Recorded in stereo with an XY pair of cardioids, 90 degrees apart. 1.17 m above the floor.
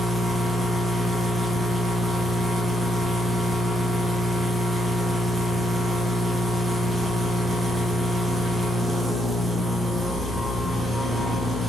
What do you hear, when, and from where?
0.0 s a machine running: 25° right, 0.9 m